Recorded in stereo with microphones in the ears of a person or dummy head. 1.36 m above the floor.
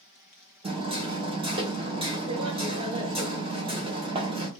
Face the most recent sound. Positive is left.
turn(degrees=-35)  # may be behind; listen again after turning